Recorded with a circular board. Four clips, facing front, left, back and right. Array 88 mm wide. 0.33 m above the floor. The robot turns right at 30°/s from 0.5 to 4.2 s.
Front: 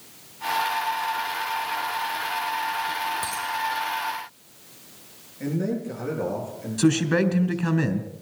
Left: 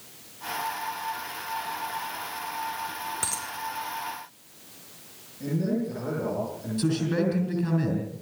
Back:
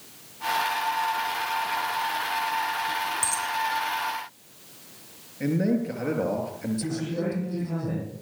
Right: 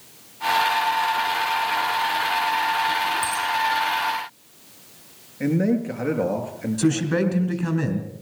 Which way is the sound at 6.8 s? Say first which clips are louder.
Right 4 dB, front 13 dB; 25° right.